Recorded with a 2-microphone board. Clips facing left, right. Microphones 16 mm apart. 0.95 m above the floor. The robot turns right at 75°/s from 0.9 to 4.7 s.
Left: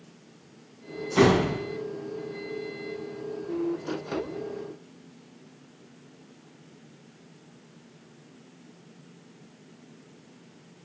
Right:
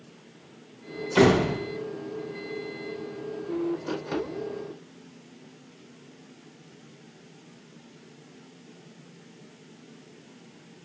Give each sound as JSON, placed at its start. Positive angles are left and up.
{"t": 1.1, "sound": "a door slam", "azimuth_deg": -110, "distance_m": 2.5}